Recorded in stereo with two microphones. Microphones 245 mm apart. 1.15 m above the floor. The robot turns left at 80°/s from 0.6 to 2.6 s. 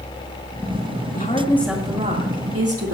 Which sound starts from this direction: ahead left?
A woman speaking, at 1.1 s.